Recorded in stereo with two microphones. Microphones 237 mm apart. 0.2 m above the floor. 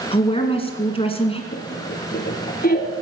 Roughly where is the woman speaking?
Left.